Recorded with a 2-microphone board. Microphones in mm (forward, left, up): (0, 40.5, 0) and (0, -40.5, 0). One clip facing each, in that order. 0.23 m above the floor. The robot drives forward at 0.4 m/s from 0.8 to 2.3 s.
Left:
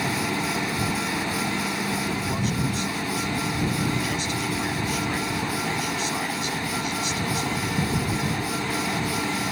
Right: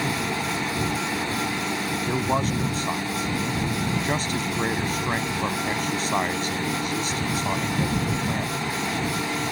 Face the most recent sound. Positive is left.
turn(degrees=-45)  # may be behind; listen again after turning